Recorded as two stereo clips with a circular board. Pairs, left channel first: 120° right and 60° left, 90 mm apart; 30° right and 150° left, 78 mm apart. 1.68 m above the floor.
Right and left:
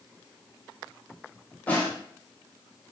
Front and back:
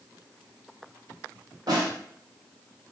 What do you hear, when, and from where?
1.7 s a snare drum: 170° left, 1.2 m